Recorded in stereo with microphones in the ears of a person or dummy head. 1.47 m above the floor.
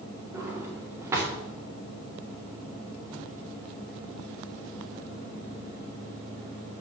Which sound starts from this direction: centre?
A drawer, at 0.3 s.